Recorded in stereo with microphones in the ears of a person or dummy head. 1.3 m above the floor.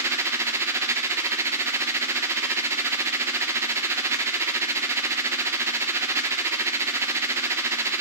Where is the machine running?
15° right (ahead or behind), 0.9 m.